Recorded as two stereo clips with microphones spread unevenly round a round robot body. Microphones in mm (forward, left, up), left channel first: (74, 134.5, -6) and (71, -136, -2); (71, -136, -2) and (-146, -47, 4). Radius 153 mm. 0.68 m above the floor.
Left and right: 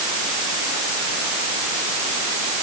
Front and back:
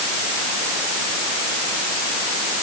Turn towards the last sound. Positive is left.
No sound to turn to.